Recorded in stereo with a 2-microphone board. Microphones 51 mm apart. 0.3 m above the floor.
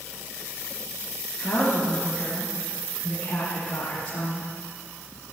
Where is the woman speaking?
20° left (ahead or behind), 4.5 m.